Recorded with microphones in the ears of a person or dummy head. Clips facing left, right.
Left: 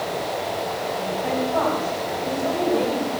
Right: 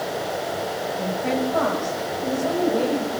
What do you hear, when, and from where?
1.0 s a woman speaking: 25° right (ahead or behind), 8 m; by 3.2 s 5° right (ahead or behind), 7 m